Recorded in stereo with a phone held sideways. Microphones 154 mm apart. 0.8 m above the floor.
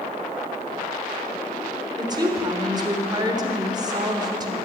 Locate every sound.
2.0 s a woman speaking: 25° right (ahead or behind), 3.5 m